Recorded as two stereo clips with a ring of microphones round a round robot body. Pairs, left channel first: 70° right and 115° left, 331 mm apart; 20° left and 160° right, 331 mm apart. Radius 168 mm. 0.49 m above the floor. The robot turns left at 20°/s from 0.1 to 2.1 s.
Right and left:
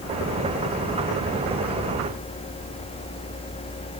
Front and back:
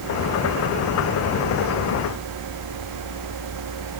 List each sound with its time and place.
Only background noise.